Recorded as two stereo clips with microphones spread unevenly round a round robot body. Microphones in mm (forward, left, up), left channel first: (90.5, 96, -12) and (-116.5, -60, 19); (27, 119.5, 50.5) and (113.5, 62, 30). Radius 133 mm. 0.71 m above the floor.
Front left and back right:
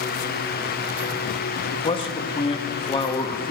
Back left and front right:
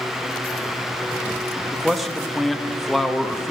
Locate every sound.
1.7 s a man speaking: 30° left, 0.5 m